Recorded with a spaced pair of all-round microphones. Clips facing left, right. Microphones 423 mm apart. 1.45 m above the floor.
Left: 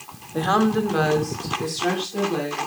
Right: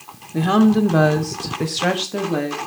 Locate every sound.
0.3 s a woman speaking: 40° right (ahead or behind), 0.9 m; by 2.6 s 65° right (ahead or behind), 1.2 m